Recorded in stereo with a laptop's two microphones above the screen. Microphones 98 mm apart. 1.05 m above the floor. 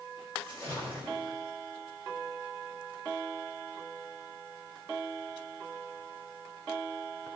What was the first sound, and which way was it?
A splash, 20° left (ahead or behind).